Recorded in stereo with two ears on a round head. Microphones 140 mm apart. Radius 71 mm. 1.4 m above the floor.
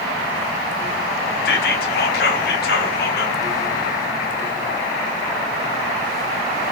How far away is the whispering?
About 0.7 m.